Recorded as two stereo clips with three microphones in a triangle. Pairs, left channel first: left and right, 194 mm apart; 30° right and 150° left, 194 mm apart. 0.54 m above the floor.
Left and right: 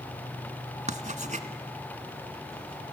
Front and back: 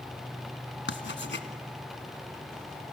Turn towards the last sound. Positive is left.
turn(degrees=-40)